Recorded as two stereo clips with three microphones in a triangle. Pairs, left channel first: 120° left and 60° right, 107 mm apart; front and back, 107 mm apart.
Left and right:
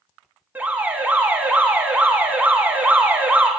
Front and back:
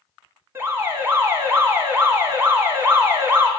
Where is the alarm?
125° right, 1.9 m.